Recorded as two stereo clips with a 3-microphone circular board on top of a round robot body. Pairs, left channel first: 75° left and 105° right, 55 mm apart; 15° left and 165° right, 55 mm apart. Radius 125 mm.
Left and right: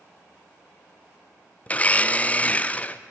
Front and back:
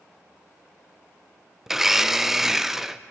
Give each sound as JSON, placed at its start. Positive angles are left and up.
{"t": 1.7, "sound": "a blender", "azimuth_deg": 115, "distance_m": 0.7}